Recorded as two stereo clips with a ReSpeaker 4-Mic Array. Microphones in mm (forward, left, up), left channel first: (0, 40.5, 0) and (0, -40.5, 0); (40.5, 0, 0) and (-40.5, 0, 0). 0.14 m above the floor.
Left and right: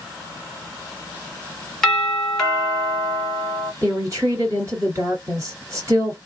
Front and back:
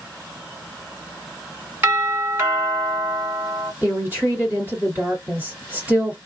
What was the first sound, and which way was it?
A doorbell, 170° left.